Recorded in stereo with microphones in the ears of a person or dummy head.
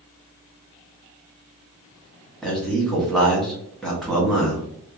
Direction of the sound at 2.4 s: 5° left (ahead or behind).